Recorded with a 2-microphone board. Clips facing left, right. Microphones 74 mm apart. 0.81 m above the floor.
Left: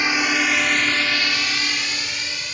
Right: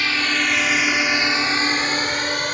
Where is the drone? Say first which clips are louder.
Left 1 dB; 20° left (ahead or behind); by 2.5 s 60° right (ahead or behind).